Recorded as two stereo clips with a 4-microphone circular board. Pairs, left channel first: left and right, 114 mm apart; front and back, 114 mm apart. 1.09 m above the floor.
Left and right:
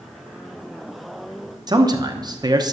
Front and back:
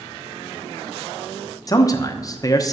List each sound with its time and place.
1.7 s a man speaking: 50° right, 0.9 m